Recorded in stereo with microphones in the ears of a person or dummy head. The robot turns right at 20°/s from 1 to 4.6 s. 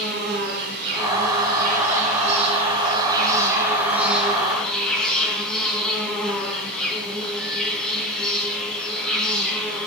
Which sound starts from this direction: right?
An insect, at 0.0 s.